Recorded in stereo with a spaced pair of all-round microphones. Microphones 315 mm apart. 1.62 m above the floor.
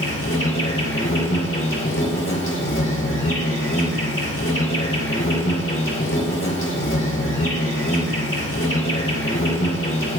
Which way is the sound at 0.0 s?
40° left (ahead or behind).